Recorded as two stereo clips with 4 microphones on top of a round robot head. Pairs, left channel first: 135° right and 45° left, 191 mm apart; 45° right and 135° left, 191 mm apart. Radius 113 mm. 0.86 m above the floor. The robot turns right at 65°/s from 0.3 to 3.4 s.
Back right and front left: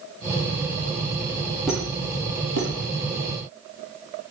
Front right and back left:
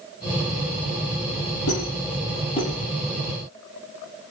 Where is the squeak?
40° right, 9.5 m; by 2.7 s 30° left, 9.5 m.